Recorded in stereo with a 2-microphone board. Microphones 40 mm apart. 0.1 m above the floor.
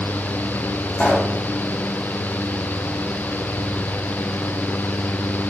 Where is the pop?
35° left (ahead or behind), 3.5 m.